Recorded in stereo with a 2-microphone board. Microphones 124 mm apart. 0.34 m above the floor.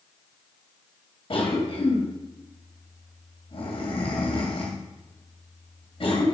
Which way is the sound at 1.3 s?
50° left (ahead or behind).